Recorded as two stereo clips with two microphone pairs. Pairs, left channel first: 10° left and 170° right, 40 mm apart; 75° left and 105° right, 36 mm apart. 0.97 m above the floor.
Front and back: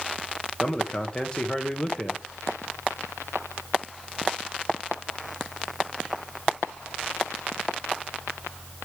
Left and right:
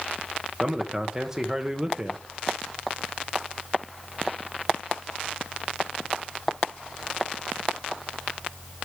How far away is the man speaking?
About 0.9 m.